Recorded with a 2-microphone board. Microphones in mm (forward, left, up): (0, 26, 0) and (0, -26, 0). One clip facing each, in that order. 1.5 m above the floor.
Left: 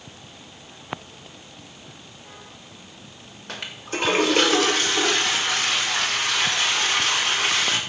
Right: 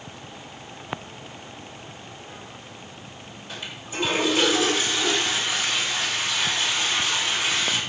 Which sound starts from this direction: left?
A toilet flushing, at 3.5 s.